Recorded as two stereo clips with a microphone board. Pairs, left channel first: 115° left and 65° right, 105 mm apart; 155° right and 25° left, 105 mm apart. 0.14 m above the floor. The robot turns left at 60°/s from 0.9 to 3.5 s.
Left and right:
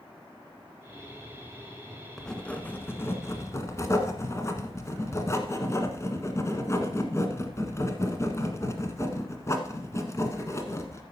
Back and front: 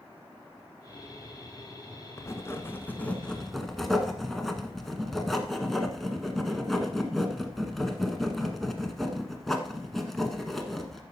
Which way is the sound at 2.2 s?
165° right.